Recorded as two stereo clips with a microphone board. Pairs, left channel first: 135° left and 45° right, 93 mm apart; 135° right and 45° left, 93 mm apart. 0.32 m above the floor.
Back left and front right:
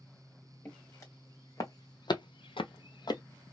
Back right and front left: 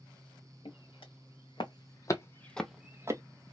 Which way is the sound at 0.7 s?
160° right.